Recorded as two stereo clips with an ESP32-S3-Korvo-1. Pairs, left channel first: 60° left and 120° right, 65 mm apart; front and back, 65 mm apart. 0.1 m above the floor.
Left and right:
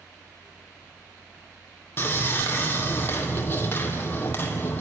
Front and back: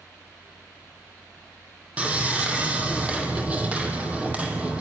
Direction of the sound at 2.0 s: 115° left.